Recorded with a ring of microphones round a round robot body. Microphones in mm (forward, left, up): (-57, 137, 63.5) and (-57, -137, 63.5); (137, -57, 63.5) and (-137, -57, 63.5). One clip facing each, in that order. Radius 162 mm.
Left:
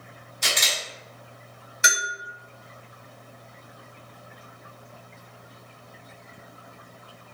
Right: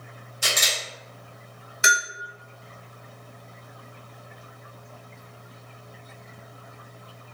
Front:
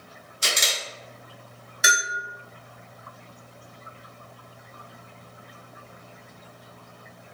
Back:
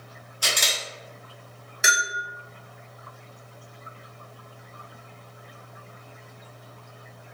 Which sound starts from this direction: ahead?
A camera shutter, at 0.4 s.